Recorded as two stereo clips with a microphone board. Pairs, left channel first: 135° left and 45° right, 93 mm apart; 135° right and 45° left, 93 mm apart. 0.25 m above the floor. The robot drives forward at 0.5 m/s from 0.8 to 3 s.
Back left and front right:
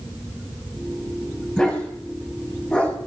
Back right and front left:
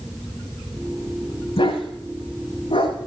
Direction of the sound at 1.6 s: 150° right.